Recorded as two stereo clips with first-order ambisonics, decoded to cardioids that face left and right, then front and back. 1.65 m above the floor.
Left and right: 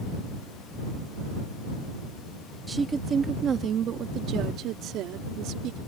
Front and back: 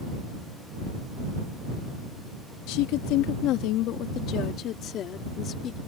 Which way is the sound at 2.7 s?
10° right.